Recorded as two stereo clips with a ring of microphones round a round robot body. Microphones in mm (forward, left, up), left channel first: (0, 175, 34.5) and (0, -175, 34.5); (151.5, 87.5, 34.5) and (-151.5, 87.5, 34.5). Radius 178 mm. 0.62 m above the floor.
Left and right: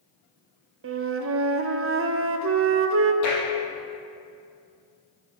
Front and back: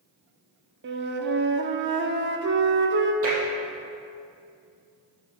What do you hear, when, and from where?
0.8 s a flute: 135° right, 0.9 m
3.2 s tapping: 135° left, 4.5 m